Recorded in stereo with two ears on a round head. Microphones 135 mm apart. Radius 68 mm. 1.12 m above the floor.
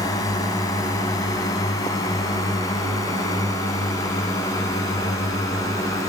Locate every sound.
0.0 s a drone: 25° left (ahead or behind); by 6.1 s 20° left (ahead or behind)